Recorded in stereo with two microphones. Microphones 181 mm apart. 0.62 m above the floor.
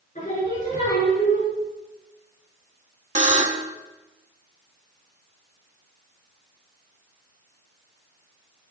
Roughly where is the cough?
I don't hear a cough.